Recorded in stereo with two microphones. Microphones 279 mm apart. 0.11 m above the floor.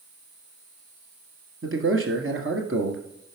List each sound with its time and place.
1.6 s a man speaking: 50° right (ahead or behind), 1.9 m